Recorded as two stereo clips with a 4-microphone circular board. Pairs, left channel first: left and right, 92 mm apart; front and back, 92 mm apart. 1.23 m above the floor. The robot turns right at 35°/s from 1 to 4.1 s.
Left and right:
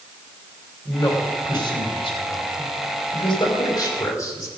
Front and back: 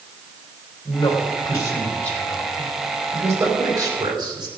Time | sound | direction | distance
0.8 | a man speaking | 40° left | 3.5 m